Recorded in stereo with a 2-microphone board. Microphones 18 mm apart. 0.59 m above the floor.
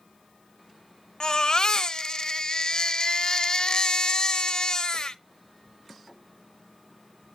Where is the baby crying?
45° left (ahead or behind), 0.6 m.